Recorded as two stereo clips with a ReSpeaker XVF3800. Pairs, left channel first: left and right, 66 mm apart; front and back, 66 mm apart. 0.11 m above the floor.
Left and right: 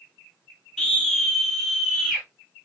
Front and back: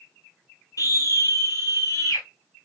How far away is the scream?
About 3 m.